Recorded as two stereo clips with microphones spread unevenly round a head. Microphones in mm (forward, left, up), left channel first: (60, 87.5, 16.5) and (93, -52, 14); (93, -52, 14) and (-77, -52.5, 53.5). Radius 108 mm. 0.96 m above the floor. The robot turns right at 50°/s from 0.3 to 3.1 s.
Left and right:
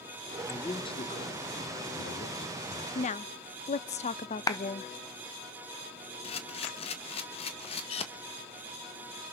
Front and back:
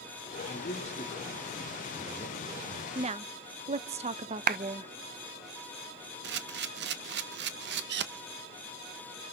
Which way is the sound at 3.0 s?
115° left.